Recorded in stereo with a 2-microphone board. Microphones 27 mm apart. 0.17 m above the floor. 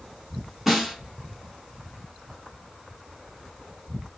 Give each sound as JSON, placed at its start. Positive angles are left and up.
{"t": 0.7, "sound": "a snare drum", "side_deg": -10, "distance_m": 0.8}